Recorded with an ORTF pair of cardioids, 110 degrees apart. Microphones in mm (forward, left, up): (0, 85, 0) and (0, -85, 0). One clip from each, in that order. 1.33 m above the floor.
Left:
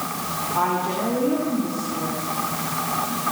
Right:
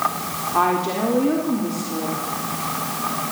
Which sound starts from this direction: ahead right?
A woman speaking, at 0.5 s.